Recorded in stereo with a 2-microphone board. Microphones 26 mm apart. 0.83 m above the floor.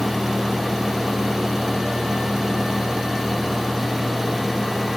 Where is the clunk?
No clunk in this recording.